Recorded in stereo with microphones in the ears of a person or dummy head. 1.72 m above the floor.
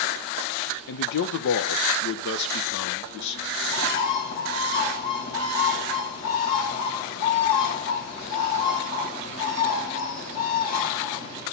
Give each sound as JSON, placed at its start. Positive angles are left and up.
{"t": 0.9, "sound": "a man speaking", "side_deg": 60, "distance_m": 1.0}
{"t": 3.6, "sound": "a bird", "side_deg": 55, "distance_m": 5.5}